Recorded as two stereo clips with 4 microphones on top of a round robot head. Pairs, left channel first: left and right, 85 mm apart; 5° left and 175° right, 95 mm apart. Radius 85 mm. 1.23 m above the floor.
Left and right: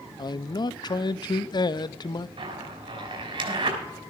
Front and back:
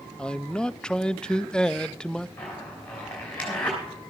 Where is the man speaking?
85° left, 0.5 m.